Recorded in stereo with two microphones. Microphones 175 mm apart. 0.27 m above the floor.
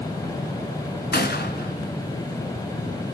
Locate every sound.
1.1 s a gunshot: 70° left (ahead or behind), 2.5 m